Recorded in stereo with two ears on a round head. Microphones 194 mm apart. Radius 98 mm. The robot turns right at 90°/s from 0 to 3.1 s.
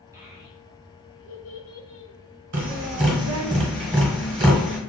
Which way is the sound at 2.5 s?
60° right (ahead or behind).